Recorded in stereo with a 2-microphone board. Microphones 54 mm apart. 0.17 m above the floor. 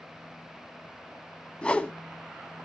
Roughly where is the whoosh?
Centre.